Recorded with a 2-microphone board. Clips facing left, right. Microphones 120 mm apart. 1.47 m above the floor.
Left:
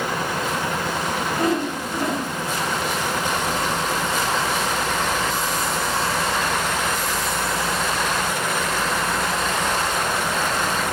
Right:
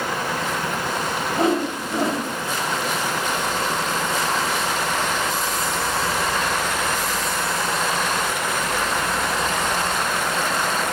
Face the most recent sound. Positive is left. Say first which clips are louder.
# right 3 dB
turn(degrees=-25)  # may be behind; listen again after turning